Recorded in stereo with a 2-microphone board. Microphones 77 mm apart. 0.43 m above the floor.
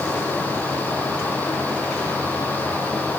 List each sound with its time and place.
Only background noise.